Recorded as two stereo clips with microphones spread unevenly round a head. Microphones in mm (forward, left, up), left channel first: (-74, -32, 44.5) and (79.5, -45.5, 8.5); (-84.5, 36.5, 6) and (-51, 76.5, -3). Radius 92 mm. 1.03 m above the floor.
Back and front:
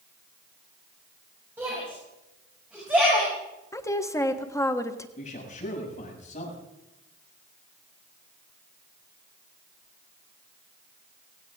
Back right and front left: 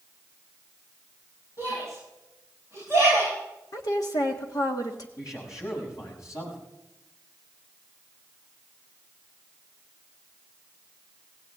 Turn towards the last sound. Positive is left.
turn(degrees=-140)